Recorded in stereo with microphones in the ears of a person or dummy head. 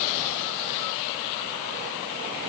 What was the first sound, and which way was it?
Only background noise.